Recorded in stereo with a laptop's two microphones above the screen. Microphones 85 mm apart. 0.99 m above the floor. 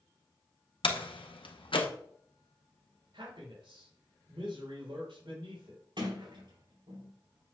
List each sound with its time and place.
0.8 s a door slam: 80° left, 1.0 m
3.1 s a man speaking: 80° right, 4 m
6.0 s a sliding door: 70° right (ahead or behind), 4 m